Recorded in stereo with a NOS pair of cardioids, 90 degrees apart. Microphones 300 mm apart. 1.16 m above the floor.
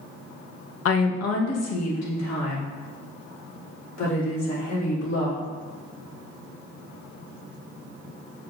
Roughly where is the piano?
No piano in this recording.